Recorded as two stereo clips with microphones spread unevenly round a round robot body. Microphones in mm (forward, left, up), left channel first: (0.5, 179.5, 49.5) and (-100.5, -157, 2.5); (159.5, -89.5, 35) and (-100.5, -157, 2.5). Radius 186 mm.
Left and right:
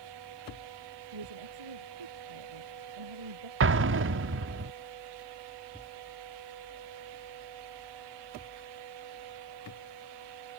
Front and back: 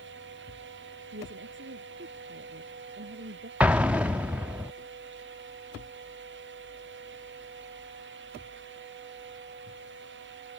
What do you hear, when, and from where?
1.1 s a woman speaking: 120° right; by 3.5 s 115° right
3.6 s an explosion: 90° right